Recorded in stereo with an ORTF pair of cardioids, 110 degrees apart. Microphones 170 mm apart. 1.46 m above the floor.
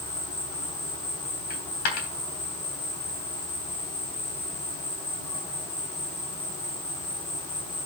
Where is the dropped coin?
65° left, 3.5 m.